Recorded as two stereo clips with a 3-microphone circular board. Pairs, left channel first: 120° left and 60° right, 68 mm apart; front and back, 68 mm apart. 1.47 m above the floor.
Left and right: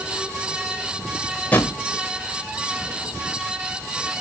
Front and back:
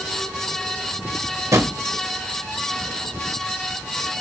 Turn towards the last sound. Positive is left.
turn(degrees=175)